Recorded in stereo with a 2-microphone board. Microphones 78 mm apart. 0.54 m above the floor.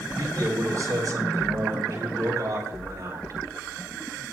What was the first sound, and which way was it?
A man speaking, 55° right (ahead or behind).